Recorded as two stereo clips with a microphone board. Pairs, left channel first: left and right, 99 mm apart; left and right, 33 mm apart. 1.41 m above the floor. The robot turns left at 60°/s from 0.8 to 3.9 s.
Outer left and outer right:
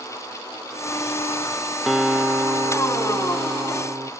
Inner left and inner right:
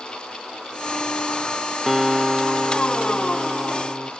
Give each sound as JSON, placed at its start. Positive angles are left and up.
{"t": 1.9, "sound": "a guitar", "azimuth_deg": 0, "distance_m": 0.6}